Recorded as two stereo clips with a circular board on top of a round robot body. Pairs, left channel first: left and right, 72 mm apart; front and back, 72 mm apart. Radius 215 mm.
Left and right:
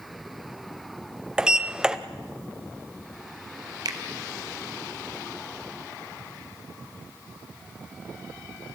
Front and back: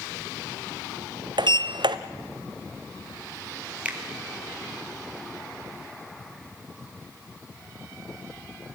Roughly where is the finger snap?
Right.